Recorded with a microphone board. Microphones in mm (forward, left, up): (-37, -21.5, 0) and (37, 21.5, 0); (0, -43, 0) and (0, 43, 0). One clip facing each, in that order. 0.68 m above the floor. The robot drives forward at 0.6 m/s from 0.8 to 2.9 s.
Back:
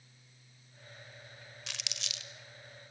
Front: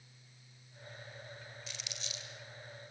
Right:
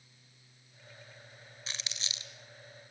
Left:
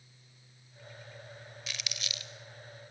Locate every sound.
1.7 s crumpling: 150° right, 1.9 m; by 2.3 s 155° right, 2 m